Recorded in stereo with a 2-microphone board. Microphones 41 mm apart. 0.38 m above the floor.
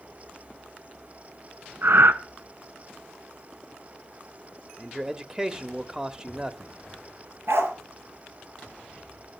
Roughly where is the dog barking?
Right.